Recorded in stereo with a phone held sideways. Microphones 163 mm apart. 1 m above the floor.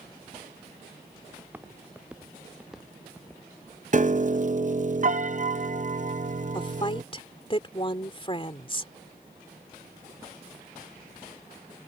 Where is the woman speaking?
35° left (ahead or behind).